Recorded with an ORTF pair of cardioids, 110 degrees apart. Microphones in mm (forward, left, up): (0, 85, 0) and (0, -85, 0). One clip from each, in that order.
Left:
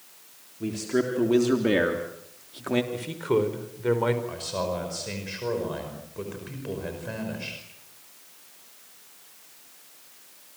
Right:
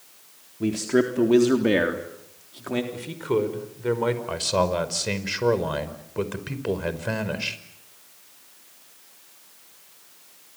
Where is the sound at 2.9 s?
Straight ahead, 5 m.